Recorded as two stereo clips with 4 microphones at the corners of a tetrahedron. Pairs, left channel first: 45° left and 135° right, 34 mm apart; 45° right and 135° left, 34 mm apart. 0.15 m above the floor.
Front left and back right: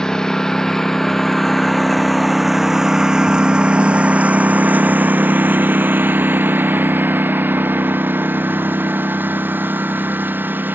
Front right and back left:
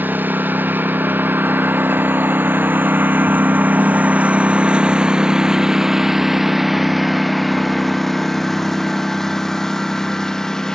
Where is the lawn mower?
115° left; by 10.8 s 115° right.